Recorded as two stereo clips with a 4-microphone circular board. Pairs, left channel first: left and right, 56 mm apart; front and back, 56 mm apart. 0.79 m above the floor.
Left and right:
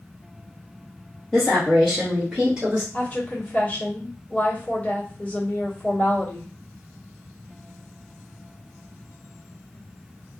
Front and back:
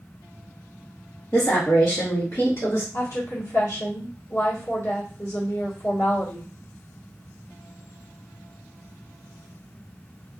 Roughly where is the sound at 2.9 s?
Ahead left.